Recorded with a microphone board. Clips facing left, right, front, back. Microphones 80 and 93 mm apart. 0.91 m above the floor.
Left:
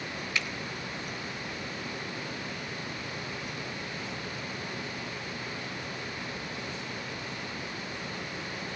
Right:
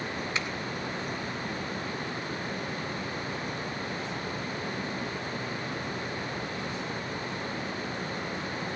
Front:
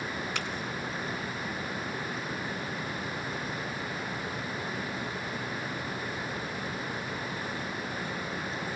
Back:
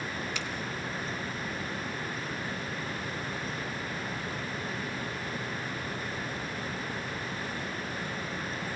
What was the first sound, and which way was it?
A finger snap, 25° right.